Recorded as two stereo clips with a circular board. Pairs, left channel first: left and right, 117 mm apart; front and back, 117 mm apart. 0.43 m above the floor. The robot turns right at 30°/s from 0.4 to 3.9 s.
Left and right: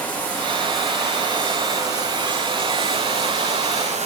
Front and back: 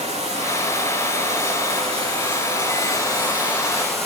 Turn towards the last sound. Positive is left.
turn(degrees=-90)